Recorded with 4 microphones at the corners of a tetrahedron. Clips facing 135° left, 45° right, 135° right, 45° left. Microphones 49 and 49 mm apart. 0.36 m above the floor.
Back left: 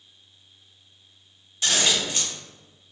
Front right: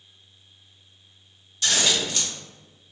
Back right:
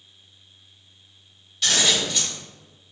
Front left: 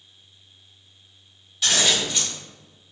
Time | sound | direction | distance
1.6 | scissors | 130° left | 1.0 m